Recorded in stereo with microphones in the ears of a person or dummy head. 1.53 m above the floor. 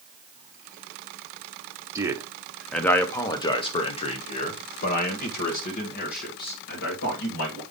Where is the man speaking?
20° right (ahead or behind), 0.9 m; by 7.6 s 65° left (ahead or behind), 3 m.